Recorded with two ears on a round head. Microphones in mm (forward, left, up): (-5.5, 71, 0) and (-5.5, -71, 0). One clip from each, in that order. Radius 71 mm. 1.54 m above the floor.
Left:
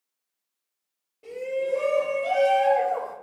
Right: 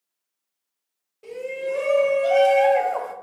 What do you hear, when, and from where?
1.2 s a shout: 20° right (ahead or behind), 1.4 m; by 3.1 s 55° right (ahead or behind), 0.6 m